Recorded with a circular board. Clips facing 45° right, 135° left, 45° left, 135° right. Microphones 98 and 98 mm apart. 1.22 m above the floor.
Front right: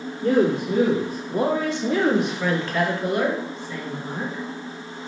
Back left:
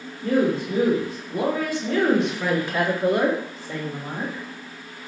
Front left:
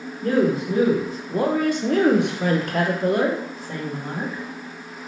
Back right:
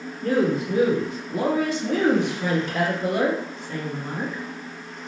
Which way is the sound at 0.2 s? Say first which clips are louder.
Front right 2 dB, front left 2 dB; 25° right.